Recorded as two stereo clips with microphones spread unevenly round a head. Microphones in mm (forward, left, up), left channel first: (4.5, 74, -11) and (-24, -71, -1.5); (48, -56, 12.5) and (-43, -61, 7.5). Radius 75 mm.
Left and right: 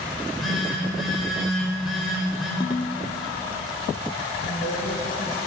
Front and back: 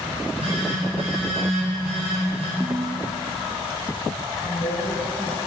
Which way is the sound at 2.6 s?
105° left.